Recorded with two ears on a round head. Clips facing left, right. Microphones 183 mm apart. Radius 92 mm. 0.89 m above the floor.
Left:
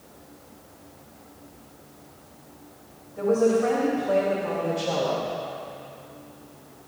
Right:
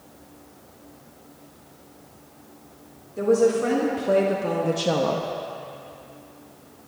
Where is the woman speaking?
45° right (ahead or behind), 2.5 m; by 5.3 s 60° right (ahead or behind), 0.8 m.